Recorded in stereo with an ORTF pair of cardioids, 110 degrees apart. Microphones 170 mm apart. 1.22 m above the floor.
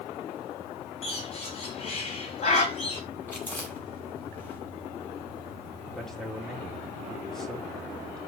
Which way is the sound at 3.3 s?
10° left.